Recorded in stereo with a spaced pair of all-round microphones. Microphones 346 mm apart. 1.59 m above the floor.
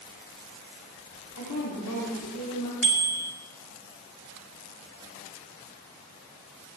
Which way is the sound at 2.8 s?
60° left (ahead or behind).